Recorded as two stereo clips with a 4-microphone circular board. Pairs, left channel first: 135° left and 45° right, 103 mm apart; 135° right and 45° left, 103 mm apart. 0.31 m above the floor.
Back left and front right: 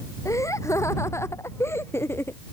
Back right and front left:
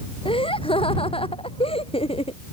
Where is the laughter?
165° right; by 2.4 s 155° right.